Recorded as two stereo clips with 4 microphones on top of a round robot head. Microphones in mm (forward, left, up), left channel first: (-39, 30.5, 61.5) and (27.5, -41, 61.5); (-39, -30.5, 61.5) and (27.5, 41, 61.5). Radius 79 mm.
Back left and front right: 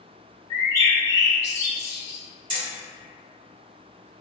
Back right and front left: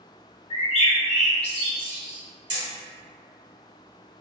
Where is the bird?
165° right, 0.9 m.